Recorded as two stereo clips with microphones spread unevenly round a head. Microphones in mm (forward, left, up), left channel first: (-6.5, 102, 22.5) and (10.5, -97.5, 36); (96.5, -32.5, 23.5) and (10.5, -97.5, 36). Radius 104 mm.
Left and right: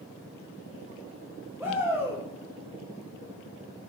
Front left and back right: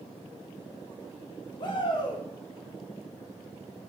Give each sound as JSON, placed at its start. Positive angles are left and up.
{"t": 1.6, "sound": "a shout", "azimuth_deg": -10, "distance_m": 2.5}